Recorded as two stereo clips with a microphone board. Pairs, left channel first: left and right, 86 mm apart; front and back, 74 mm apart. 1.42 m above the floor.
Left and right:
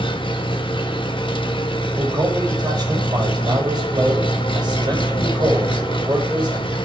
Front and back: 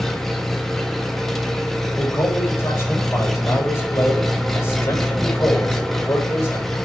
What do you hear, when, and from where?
0.0 s an engine running: 85° left, 1.5 m
1.9 s a man speaking: 55° right, 6 m